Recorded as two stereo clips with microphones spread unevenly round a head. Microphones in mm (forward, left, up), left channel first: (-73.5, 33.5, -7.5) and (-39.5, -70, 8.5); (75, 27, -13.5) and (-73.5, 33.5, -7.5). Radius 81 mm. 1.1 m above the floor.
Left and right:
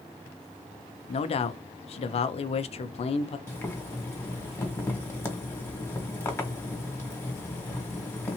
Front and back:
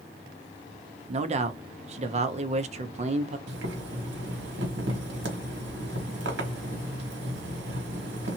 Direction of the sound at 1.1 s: 130° left.